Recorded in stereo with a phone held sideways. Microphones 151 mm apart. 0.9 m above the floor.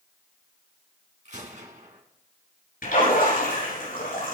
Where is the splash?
75° left (ahead or behind), 8 m.